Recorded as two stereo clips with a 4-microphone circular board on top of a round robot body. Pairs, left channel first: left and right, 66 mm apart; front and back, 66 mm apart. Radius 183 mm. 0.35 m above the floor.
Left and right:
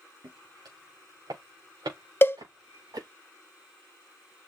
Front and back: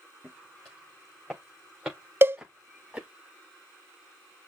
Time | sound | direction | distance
0.2 | footsteps | 85° right | 3.5 m
2.2 | a cowbell | 135° left | 0.6 m